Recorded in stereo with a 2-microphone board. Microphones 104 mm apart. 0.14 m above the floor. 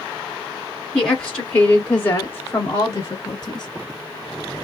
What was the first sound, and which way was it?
A woman speaking, centre (ahead or behind).